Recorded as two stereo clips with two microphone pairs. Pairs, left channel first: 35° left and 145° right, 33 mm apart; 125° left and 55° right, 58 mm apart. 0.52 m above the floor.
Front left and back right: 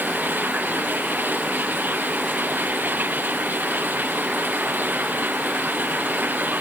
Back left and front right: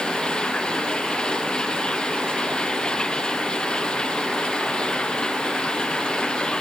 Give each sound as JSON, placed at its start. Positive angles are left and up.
{"t": 0.0, "sound": "running water", "azimuth_deg": -160}